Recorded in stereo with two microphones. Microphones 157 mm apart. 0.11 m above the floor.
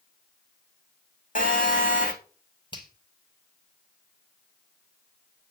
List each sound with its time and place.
1.4 s a phone buzzing: 60° left (ahead or behind), 2.5 m
2.7 s a finger snap: 30° left (ahead or behind), 3.5 m